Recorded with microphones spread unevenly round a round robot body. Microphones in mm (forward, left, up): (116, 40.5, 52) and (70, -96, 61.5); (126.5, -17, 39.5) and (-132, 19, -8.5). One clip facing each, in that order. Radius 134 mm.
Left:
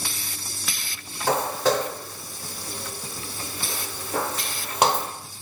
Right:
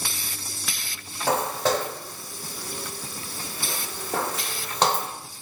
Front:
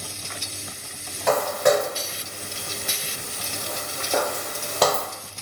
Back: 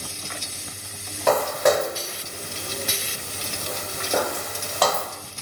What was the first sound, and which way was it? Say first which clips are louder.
Footsteps: left 1 dB, even; 140° right.